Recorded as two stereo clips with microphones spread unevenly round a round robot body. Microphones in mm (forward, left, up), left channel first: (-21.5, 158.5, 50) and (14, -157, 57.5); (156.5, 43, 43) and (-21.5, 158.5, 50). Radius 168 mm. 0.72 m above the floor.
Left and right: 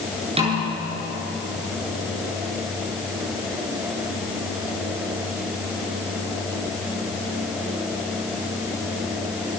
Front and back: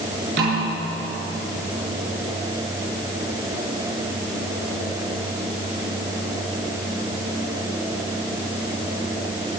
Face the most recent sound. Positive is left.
turn(degrees=-155)